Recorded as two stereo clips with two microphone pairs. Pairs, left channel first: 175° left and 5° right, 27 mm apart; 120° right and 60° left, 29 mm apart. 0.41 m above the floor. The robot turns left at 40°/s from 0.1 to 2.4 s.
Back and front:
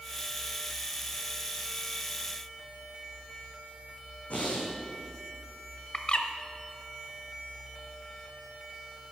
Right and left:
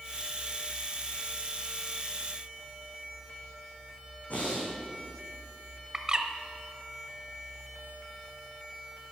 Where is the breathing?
150° right, 4.5 m.